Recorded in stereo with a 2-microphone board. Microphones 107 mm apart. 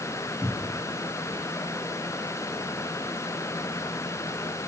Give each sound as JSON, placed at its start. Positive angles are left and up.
{"t": 0.4, "sound": "a cupboard door", "side_deg": 15, "distance_m": 1.4}